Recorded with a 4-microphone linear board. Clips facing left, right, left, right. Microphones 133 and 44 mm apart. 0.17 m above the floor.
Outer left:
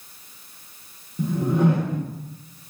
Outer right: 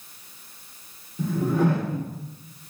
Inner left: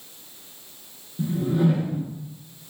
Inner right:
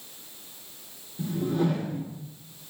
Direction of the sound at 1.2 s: 20° left (ahead or behind).